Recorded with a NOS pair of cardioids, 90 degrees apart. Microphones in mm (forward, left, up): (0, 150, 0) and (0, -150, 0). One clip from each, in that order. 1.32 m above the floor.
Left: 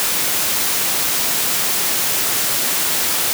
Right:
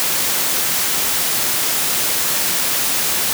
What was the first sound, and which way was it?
Only background noise.